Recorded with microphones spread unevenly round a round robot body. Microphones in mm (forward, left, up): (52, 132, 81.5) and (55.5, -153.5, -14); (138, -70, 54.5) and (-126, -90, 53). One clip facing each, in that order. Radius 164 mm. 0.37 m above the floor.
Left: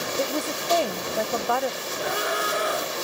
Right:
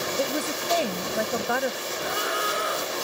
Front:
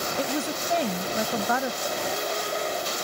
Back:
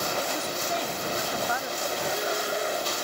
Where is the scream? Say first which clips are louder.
Left 4 dB, even; 95° left.